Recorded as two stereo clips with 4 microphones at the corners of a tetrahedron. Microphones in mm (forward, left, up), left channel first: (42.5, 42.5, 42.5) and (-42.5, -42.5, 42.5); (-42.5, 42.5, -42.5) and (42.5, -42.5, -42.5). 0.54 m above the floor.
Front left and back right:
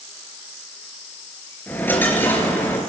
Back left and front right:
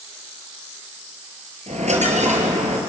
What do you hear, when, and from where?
1.7 s a dropped coin: 30° right, 3.5 m